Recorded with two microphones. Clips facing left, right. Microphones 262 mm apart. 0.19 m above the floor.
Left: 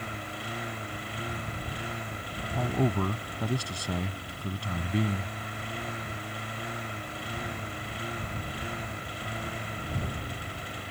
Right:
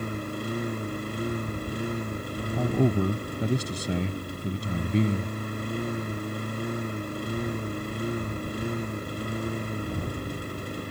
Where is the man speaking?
20° right (ahead or behind).